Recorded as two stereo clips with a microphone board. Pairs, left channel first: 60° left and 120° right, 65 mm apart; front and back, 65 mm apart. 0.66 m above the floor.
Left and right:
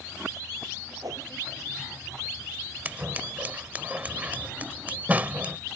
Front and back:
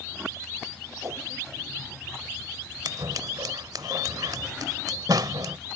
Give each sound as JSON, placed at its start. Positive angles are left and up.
{"t": 1.0, "sound": "a whoosh", "azimuth_deg": -140}
{"t": 2.9, "sound": "scissors", "azimuth_deg": 175}